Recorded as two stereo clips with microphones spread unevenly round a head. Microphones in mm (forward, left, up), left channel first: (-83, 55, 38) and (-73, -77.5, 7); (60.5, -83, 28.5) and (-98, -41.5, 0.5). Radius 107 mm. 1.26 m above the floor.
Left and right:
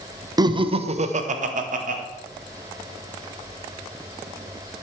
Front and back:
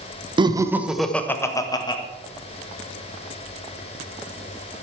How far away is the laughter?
About 1.2 m.